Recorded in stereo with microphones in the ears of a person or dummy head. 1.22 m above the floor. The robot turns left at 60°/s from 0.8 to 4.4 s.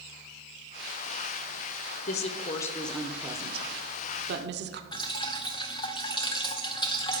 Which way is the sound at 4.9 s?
25° left (ahead or behind).